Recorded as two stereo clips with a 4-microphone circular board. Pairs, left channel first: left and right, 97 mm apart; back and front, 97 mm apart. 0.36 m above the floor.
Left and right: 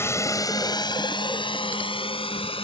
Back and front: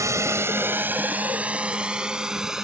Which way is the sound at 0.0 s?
40° left.